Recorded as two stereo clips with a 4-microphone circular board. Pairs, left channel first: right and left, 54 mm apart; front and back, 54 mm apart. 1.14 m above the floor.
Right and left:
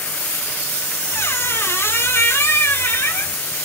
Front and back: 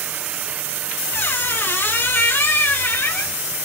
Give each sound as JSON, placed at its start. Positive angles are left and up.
{"t": 1.1, "sound": "a squeak", "azimuth_deg": -45, "distance_m": 0.7}